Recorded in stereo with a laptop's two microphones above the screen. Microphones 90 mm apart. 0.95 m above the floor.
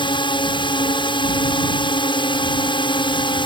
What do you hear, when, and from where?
0.0 s a drone: 65° left (ahead or behind)